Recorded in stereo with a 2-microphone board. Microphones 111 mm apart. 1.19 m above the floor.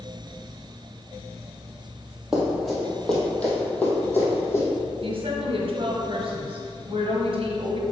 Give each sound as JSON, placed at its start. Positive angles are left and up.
{"t": 2.3, "sound": "running footsteps", "side_deg": -5, "distance_m": 1.9}
{"t": 5.0, "sound": "a woman speaking", "side_deg": -55, "distance_m": 1.3}